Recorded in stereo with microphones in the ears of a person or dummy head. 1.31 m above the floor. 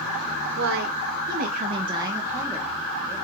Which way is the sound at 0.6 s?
65° right (ahead or behind).